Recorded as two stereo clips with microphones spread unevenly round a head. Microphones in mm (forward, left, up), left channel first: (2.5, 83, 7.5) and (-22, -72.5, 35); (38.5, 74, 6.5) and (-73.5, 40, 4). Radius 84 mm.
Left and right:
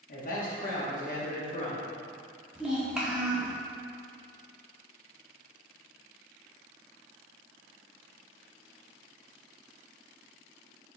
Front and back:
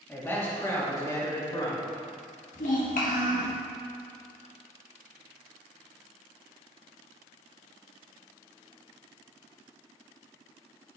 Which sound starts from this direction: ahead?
A child speaking, at 2.5 s.